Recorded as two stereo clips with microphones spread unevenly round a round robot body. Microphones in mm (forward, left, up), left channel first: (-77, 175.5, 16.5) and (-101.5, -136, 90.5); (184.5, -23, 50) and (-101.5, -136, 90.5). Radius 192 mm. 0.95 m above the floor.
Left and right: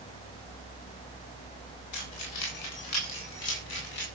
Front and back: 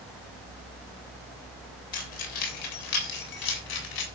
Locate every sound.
1.9 s keys jangling: 45° left, 3 m; by 4.0 s 25° left, 3.5 m